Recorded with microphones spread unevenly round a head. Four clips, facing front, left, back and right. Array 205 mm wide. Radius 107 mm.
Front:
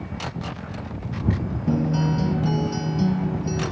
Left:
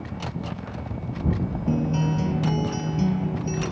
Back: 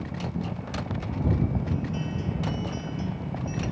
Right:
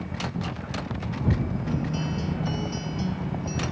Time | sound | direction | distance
1.7 | a guitar | 30° left | ?